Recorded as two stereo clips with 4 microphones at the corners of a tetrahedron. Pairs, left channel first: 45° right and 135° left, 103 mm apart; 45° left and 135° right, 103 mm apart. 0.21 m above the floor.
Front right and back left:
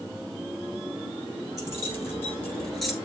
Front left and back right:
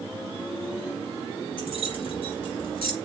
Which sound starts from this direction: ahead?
Keys jangling, at 1.6 s.